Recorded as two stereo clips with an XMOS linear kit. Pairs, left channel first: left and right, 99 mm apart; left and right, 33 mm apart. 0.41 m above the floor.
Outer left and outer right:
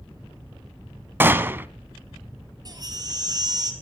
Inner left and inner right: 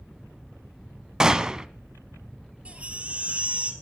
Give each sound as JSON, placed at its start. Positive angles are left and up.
{"t": 1.2, "sound": "a gunshot", "side_deg": -20, "distance_m": 0.8}
{"t": 2.6, "sound": "a baby crying", "side_deg": -40, "distance_m": 3.5}